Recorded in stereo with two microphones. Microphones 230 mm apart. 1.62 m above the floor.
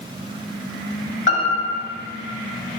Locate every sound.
1.3 s a piano: 55° left (ahead or behind), 2.5 m